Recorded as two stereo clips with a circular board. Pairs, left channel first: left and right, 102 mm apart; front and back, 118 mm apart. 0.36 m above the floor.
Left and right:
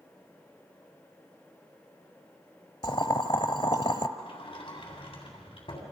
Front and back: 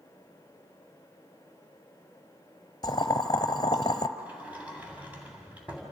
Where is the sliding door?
105° left, 3 m.